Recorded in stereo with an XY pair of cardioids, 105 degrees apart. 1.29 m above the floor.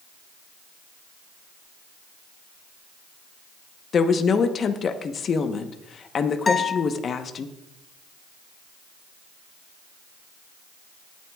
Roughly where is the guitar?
Ahead left.